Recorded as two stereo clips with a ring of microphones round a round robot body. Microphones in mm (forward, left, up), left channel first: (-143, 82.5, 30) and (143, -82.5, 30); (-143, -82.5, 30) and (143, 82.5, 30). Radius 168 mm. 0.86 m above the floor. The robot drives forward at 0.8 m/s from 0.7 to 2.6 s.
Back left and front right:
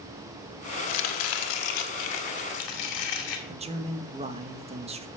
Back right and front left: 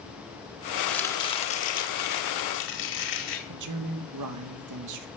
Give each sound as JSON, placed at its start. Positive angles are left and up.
{"t": 0.9, "sound": "chopping", "azimuth_deg": 120, "distance_m": 1.2}
{"t": 3.5, "sound": "a man speaking", "azimuth_deg": 40, "distance_m": 1.0}